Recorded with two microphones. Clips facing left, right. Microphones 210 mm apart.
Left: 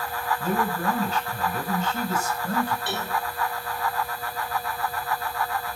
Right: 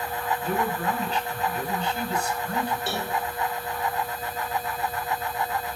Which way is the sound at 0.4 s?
45° left (ahead or behind).